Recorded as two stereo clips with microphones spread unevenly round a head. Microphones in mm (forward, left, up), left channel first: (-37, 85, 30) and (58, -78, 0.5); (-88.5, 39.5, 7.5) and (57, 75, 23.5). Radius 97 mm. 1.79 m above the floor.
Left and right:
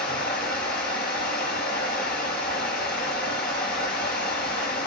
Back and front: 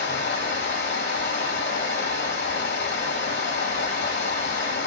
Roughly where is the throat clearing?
No throat clearing in this recording.